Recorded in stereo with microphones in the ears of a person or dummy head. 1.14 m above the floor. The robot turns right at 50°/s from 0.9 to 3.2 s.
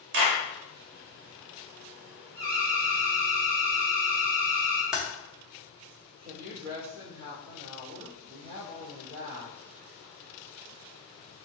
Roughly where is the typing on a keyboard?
Centre.